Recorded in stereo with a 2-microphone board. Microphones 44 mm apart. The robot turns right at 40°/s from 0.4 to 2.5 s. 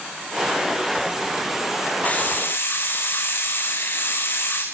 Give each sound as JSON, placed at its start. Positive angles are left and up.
{"t": 2.0, "sound": "a hiss", "side_deg": 35, "distance_m": 5.5}